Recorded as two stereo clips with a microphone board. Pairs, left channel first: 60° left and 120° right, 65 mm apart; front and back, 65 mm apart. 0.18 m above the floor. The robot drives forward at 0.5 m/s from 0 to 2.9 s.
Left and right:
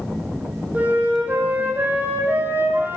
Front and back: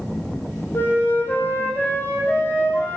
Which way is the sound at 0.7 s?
55° right.